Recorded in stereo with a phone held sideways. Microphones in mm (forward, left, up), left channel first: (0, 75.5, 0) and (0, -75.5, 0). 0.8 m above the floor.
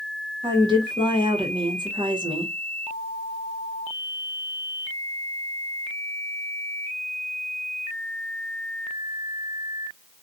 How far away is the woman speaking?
About 1.0 m.